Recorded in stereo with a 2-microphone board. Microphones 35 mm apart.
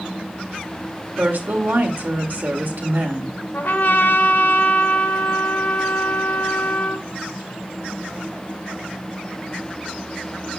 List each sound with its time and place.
1.2 s a woman speaking: 65° right (ahead or behind), 1.9 m
3.5 s a trumpet: 65° left (ahead or behind), 0.9 m